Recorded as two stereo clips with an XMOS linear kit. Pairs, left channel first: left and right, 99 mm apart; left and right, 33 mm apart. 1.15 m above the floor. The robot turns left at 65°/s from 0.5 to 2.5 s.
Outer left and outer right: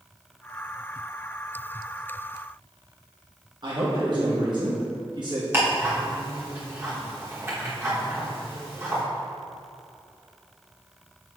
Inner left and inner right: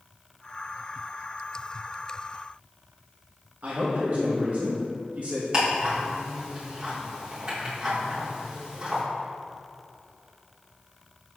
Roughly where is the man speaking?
Right.